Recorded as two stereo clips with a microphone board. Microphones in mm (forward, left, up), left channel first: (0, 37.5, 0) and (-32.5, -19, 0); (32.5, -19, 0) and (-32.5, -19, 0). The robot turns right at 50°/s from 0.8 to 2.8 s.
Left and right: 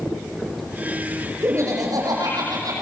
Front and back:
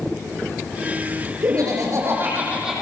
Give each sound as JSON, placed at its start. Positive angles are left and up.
{"t": 1.4, "sound": "laughter", "azimuth_deg": -165, "distance_m": 9.0}